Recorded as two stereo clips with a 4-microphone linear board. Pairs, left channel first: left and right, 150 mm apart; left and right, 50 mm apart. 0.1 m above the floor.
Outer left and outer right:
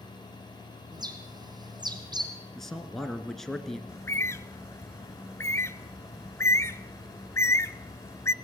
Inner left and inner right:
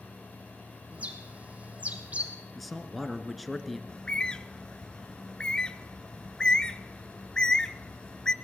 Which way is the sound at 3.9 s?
20° left (ahead or behind).